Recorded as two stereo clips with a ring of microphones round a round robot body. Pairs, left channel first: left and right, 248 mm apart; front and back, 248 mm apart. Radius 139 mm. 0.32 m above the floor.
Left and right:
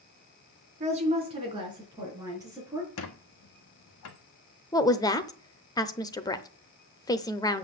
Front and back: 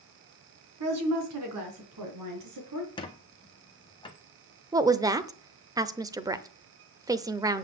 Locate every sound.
0.8 s a woman speaking: 155° right, 3 m; by 2.9 s 170° right, 5 m
3.0 s a squeak: 70° left, 1.3 m
4.7 s a woman speaking: 135° left, 0.8 m